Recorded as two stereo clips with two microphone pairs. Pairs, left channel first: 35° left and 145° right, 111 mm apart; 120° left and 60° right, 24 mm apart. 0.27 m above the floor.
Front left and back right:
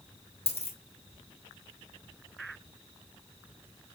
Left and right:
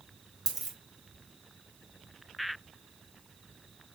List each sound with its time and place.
0.5 s a dropped coin: 10° left, 1.7 m